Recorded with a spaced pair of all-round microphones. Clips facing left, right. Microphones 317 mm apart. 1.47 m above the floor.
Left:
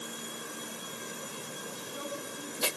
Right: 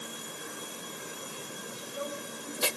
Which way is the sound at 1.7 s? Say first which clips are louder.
Right 3 dB; 55° left (ahead or behind).